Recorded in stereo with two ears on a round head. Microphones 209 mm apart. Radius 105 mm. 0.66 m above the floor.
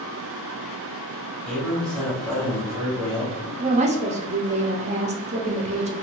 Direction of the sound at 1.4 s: Centre (ahead or behind).